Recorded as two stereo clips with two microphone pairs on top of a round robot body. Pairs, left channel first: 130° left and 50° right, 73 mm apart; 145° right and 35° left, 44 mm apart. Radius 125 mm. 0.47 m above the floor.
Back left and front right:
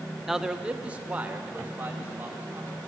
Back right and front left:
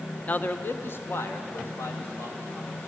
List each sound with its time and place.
0.3 s a man speaking: 140° right, 0.9 m; by 2.9 s 115° right, 4 m